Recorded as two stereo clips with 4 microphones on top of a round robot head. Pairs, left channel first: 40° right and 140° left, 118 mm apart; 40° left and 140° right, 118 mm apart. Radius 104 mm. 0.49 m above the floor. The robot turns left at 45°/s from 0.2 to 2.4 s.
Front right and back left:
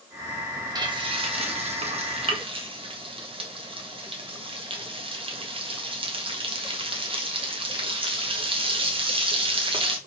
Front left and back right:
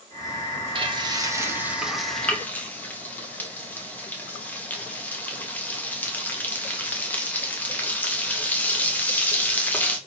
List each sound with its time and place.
0.8 s frying: 175° right, 2.0 m; by 10.0 s 110° left, 2.0 m